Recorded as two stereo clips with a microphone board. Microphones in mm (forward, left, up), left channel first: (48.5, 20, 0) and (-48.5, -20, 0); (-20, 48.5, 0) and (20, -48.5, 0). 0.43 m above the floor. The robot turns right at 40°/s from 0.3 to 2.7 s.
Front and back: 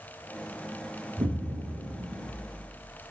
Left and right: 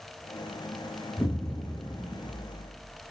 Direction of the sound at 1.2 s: Straight behind.